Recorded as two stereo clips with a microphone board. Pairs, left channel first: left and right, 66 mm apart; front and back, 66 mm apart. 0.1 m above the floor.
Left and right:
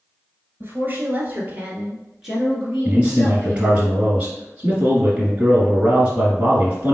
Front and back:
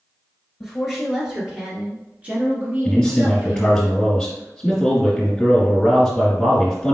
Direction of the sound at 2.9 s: 60° right.